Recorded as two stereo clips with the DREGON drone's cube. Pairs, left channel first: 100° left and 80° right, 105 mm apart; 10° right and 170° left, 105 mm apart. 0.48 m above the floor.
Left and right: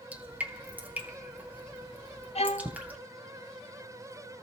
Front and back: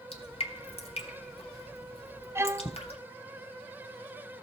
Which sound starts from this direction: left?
A violin, at 2.4 s.